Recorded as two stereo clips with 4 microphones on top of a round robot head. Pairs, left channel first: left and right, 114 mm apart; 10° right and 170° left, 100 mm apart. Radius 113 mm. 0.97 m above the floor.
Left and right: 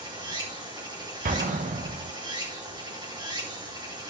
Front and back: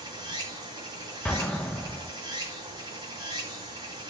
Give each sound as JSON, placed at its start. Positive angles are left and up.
{"t": 0.0, "sound": "running water", "azimuth_deg": -140, "distance_m": 8.0}
{"t": 1.2, "sound": "an explosion", "azimuth_deg": -90, "distance_m": 1.2}